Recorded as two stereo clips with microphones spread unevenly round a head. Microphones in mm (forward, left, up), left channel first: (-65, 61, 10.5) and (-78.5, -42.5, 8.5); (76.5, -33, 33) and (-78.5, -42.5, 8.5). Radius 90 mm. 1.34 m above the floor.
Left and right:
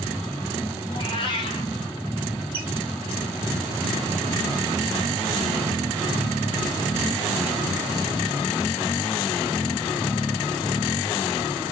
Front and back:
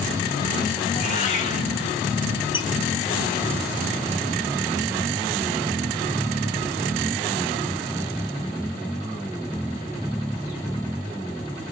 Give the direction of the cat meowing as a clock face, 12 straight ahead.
11 o'clock.